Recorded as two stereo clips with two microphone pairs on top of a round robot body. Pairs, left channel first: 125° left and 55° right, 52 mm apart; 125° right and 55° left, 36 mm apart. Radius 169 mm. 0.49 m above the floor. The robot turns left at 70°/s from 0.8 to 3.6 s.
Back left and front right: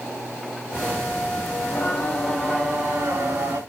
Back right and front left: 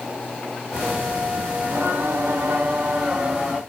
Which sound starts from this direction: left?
Singing, at 1.6 s.